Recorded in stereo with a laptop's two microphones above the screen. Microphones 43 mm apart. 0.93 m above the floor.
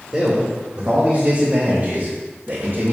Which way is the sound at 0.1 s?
10° right (ahead or behind).